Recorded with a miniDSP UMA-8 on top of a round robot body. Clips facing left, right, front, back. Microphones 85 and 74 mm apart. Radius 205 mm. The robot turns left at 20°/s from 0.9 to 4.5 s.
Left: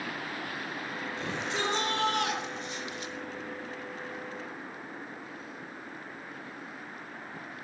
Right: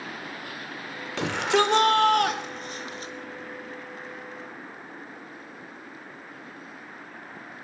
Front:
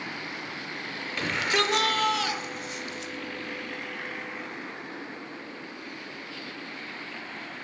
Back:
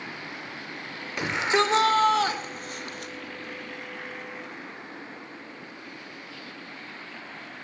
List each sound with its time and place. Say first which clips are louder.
1.2 s a shout: right 11 dB, back 3 dB; 105° right, 3.5 m; by 3.1 s 145° right, 3.5 m